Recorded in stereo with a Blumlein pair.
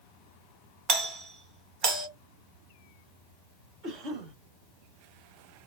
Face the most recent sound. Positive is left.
turn(degrees=-30)